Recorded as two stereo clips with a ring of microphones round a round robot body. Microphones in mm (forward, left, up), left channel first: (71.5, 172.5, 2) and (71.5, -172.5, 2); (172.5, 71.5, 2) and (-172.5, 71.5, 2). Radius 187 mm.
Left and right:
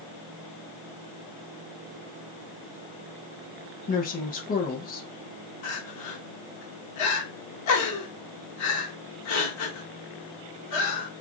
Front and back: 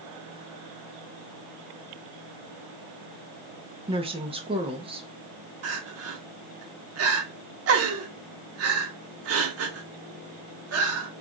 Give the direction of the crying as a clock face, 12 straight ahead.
8 o'clock.